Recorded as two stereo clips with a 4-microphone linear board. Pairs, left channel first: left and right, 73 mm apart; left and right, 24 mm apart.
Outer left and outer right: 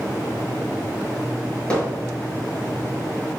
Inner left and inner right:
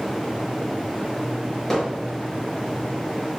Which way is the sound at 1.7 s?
15° left (ahead or behind).